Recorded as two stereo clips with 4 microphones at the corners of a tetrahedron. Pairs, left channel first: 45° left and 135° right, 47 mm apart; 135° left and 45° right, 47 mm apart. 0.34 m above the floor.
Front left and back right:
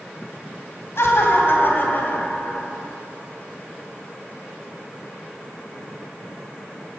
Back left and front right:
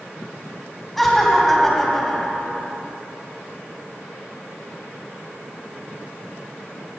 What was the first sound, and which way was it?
Laughter, 50° left.